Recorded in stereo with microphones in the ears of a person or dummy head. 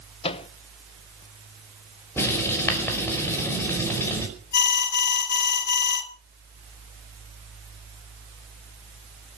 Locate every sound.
0.2 s a microwave: 30° left (ahead or behind), 0.7 m
2.2 s writing: 15° left (ahead or behind), 5.5 m
4.5 s an alarm: 55° left (ahead or behind), 2.5 m